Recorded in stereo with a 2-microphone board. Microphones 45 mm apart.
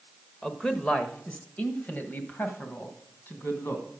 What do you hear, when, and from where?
0.4 s a man speaking: 15° left (ahead or behind), 0.8 m; by 3.9 s 55° left (ahead or behind), 2 m